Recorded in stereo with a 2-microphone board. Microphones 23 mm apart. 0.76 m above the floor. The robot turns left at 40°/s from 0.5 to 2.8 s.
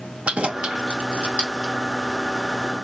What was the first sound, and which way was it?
Keys jangling, 55° right (ahead or behind).